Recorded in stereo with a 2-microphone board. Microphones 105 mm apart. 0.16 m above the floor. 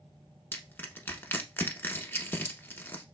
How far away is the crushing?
About 0.8 m.